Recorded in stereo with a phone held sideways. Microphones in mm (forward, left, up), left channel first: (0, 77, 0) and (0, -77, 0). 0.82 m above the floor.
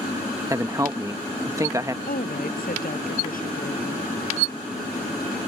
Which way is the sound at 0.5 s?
20° right (ahead or behind).